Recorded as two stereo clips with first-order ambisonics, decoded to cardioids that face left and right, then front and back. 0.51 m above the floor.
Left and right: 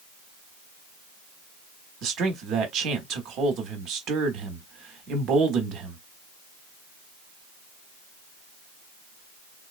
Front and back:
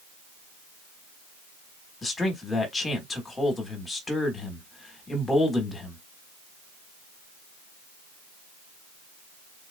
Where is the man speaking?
75° right, 1.3 m.